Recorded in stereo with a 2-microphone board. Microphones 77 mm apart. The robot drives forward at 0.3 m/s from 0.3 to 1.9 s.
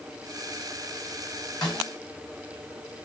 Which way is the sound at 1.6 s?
70° left (ahead or behind).